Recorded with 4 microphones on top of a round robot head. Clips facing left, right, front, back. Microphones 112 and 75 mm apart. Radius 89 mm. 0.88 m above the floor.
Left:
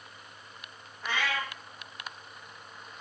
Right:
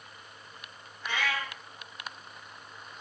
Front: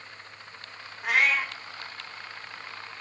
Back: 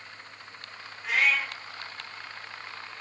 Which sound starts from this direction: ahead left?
A cat meowing, at 1.0 s.